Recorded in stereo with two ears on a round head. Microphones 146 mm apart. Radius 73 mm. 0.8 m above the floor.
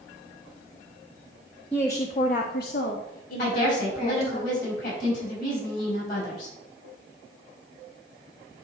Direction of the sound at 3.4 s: 50° left (ahead or behind).